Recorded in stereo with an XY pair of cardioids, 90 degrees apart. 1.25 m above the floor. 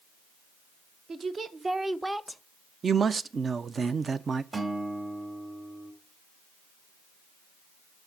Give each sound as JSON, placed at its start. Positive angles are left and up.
{"t": 1.1, "sound": "a woman speaking", "azimuth_deg": -55, "distance_m": 1.2}
{"t": 2.8, "sound": "a man speaking", "azimuth_deg": -45, "distance_m": 0.5}
{"t": 4.5, "sound": "a guitar", "azimuth_deg": -35, "distance_m": 2.5}